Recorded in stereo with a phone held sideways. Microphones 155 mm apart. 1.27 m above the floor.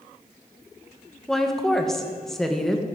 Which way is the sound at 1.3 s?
Centre (ahead or behind).